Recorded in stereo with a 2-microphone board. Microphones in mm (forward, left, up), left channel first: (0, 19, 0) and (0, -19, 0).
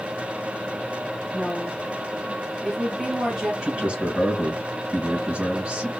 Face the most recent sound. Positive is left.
turn(degrees=-30)  # may be behind; listen again after turning